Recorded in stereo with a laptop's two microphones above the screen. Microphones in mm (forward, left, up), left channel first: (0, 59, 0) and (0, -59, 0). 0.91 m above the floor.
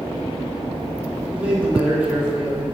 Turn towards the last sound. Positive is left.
turn(degrees=-10)  # may be behind; listen again after turning